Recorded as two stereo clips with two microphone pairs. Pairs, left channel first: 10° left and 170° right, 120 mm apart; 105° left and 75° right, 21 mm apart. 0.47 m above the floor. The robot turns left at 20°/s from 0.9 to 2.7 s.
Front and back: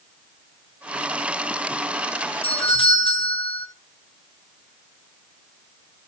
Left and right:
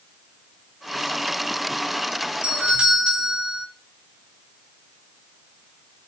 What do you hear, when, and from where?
2.4 s a doorbell: 25° right, 4 m; by 3.7 s 30° right, 4 m